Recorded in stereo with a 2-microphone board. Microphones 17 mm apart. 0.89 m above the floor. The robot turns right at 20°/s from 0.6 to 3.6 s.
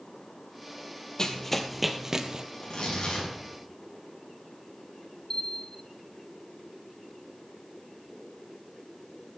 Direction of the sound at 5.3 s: 30° left (ahead or behind).